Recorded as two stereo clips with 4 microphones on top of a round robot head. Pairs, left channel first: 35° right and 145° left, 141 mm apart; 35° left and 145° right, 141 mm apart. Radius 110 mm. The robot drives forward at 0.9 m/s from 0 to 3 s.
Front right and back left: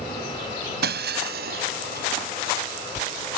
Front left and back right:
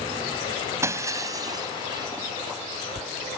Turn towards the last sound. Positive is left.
turn(degrees=160)